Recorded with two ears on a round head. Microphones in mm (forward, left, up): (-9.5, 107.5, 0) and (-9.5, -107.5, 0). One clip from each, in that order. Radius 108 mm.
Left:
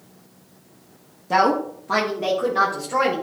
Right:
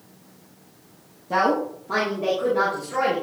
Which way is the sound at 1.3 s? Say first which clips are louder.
Left 3 dB; 30° left (ahead or behind).